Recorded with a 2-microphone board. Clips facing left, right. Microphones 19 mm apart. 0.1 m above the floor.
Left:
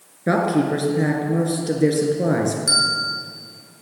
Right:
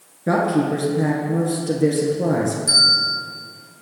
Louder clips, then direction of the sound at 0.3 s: Even; 25° left (ahead or behind).